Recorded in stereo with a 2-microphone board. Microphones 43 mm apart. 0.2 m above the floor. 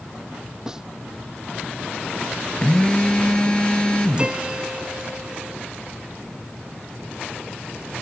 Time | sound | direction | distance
0.7 | a snare drum | 10° right (ahead or behind) | ?
2.6 | a phone buzzing | 20° left (ahead or behind) | ?
4.2 | a piano | 20° right (ahead or behind) | ?